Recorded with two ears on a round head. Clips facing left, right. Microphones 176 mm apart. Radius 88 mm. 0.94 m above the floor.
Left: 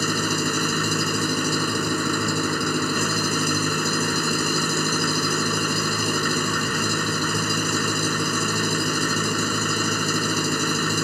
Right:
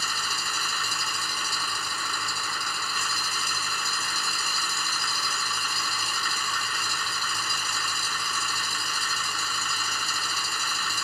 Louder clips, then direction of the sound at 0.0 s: Left 15 dB; 40° left (ahead or behind).